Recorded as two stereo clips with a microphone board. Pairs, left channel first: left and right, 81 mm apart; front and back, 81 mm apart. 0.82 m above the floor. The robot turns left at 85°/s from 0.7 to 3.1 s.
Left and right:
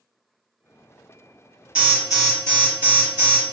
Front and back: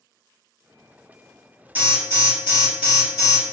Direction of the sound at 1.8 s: 145° right.